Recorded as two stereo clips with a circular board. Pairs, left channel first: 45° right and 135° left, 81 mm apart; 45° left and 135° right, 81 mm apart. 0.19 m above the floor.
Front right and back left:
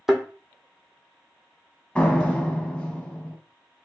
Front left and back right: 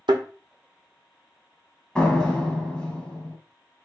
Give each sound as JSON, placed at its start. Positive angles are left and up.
{"t": 0.1, "sound": "a thud", "azimuth_deg": -140, "distance_m": 0.7}
{"t": 1.9, "sound": "a door slam", "azimuth_deg": -5, "distance_m": 0.8}